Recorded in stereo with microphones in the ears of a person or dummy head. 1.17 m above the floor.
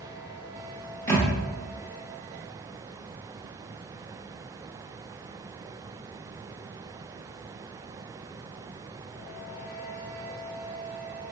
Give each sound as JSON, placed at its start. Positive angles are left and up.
{"t": 1.1, "sound": "a thud", "side_deg": 15, "distance_m": 0.9}